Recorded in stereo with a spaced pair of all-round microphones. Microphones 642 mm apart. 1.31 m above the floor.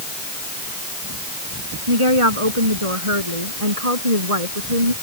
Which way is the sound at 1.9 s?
45° right (ahead or behind).